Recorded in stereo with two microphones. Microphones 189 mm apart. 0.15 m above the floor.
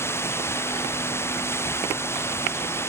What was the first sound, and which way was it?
Running water, 15° left (ahead or behind).